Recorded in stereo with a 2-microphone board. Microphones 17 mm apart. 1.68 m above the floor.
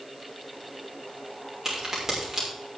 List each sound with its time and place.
1.6 s a crack: 25° right (ahead or behind), 5.5 m